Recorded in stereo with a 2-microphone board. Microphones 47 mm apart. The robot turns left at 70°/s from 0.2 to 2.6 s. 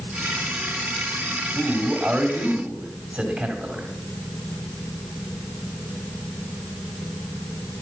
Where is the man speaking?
5° right (ahead or behind), 1.5 m; by 3.9 s 25° right (ahead or behind), 1.5 m.